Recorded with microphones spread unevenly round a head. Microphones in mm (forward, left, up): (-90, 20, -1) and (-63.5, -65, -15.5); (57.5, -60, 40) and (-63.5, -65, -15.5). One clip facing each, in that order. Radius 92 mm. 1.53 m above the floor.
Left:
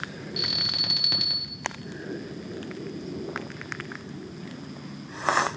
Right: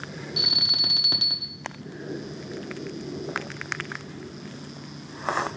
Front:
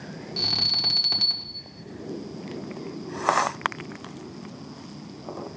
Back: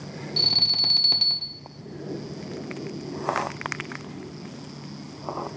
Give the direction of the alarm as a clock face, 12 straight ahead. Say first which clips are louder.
Even, even; 4 o'clock.